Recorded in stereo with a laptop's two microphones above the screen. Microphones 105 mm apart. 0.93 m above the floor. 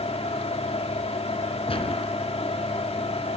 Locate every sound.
0.0 s a fan: 75° left (ahead or behind), 1.9 m
1.7 s a gunshot: 65° left (ahead or behind), 2.5 m